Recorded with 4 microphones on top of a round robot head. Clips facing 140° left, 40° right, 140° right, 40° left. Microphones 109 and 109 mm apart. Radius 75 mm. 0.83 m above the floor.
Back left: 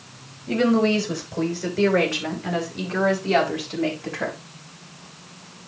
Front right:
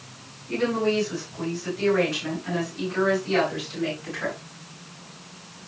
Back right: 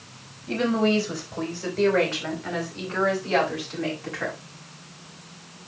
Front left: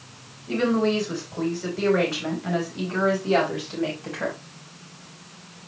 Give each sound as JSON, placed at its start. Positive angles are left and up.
{"t": 0.5, "sound": "a woman speaking", "azimuth_deg": 135, "distance_m": 4.0}